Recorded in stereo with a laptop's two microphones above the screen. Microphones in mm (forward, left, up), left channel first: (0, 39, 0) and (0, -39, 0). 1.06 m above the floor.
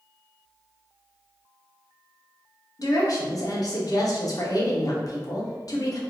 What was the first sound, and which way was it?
A woman speaking, 50° left (ahead or behind).